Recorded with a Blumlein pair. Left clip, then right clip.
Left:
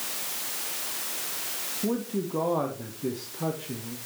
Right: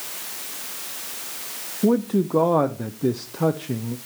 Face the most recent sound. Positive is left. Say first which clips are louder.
# right 10 dB
turn(degrees=-60)